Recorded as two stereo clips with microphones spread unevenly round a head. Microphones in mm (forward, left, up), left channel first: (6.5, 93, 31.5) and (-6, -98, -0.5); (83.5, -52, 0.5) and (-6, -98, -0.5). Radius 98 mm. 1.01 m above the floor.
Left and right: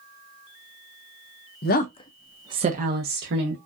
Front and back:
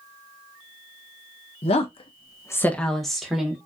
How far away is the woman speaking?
About 0.7 m.